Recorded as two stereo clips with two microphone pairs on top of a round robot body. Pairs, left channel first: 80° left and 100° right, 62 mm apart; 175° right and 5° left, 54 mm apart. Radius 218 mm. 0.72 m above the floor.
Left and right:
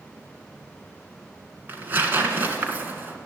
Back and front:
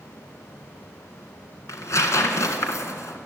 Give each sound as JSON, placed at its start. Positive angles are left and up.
{"t": 1.7, "sound": "tearing paper", "azimuth_deg": -155, "distance_m": 2.0}